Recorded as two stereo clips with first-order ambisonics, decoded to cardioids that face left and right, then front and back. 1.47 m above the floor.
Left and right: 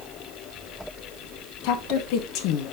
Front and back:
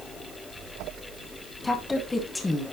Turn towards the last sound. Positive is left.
turn(degrees=80)